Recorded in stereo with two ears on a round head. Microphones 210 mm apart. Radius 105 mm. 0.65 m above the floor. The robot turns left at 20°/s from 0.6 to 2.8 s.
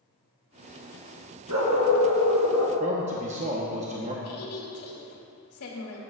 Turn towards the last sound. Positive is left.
turn(degrees=70)  # may be behind; listen again after turning